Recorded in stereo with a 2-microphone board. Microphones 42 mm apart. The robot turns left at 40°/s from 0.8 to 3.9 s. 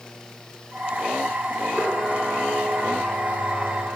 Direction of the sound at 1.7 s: 45° right.